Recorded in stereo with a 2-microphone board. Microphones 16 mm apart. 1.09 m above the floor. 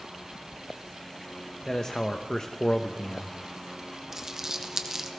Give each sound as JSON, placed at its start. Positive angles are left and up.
{"t": 1.7, "sound": "a man speaking", "side_deg": 40, "distance_m": 0.7}
{"t": 4.1, "sound": "crumpling", "side_deg": -30, "distance_m": 1.1}